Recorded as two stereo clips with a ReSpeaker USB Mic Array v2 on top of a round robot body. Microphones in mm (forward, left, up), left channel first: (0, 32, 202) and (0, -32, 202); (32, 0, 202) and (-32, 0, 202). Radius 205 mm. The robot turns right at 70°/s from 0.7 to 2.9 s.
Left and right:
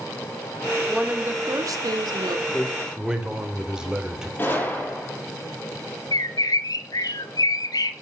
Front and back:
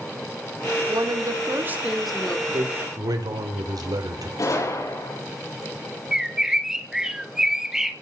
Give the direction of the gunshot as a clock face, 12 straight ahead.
11 o'clock.